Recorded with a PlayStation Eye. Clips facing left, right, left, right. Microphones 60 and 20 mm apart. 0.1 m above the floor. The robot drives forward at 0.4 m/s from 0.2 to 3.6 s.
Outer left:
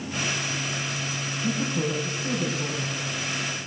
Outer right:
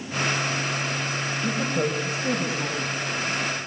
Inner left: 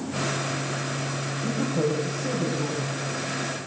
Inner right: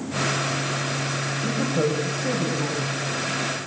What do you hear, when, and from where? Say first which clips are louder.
1.4 s a woman speaking: outer right 1 dB, inner right 1 dB; 75° right (ahead or behind), 5.5 m